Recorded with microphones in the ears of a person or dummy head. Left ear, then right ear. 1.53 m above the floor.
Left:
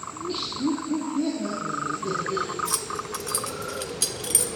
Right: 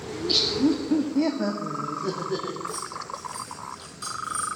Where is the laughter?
45° right (ahead or behind), 0.8 m; by 2.6 s 35° right (ahead or behind), 1.5 m.